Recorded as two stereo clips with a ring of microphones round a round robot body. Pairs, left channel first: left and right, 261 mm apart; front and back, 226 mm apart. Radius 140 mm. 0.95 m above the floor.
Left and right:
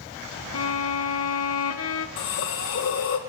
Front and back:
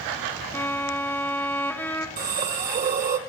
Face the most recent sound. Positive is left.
turn(degrees=130)